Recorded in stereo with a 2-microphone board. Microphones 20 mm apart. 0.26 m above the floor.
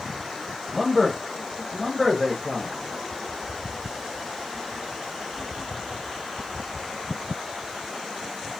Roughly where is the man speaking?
Centre.